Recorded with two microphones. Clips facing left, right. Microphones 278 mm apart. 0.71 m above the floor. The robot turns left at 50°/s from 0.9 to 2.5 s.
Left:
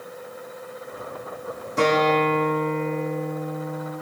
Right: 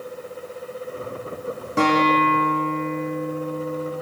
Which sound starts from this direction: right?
A guitar, at 1.8 s.